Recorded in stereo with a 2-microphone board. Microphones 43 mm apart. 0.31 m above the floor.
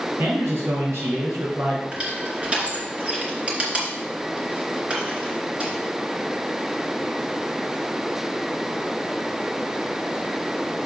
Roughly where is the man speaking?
Right.